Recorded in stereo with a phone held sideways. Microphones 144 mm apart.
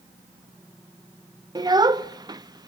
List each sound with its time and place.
1.6 s a child speaking: 30° right (ahead or behind), 0.5 m